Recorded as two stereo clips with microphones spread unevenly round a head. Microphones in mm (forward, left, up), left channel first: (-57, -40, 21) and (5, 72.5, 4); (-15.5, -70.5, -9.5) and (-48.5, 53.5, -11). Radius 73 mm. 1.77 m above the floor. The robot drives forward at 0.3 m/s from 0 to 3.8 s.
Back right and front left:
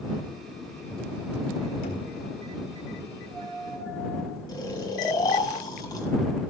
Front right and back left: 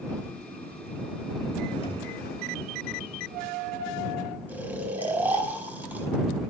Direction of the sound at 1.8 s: 120° right.